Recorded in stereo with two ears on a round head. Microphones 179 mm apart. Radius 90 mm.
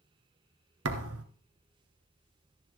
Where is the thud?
85° right, 1.3 m.